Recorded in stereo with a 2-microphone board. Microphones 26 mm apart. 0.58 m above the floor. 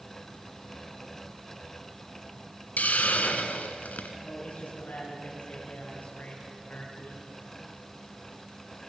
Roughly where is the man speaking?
Left.